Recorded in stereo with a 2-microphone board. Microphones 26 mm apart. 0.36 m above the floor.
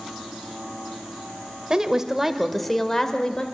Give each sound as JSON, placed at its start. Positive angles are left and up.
{"t": 1.7, "sound": "a woman speaking", "side_deg": -25, "distance_m": 1.7}